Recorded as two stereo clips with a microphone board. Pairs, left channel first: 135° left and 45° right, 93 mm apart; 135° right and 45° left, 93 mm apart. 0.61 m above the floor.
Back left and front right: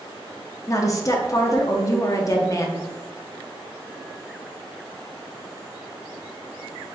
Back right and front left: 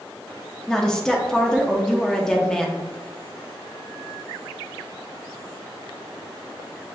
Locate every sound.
0.7 s a woman speaking: 145° left, 0.7 m